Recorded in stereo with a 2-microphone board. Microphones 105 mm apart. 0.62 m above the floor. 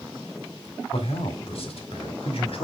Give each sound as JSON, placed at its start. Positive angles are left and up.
{"t": 0.9, "sound": "a man speaking", "side_deg": 65, "distance_m": 1.8}